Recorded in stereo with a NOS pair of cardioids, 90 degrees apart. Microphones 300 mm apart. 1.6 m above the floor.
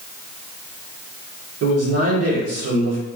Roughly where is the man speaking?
Ahead right.